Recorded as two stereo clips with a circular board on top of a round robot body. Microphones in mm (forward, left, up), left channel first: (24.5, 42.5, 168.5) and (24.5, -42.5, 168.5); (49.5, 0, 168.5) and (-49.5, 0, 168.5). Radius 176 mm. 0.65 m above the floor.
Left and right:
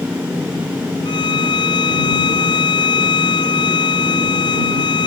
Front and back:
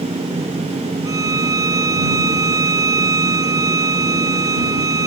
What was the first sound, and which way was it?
A violin, 125° left.